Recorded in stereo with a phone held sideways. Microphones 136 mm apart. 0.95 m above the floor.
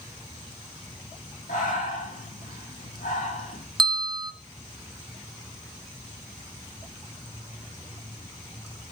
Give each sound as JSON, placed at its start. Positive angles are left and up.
{"t": 1.5, "sound": "breathing", "side_deg": 80, "distance_m": 9.5}
{"t": 3.8, "sound": "a bell", "side_deg": -35, "distance_m": 1.0}